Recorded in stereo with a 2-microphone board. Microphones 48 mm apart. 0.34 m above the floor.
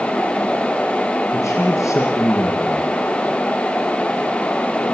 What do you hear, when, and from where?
1.3 s a man speaking: 75° left (ahead or behind), 3.5 m